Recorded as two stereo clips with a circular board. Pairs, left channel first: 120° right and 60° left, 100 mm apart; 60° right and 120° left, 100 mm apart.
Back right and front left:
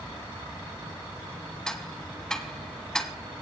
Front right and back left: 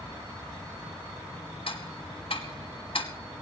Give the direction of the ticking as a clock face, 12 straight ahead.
1 o'clock.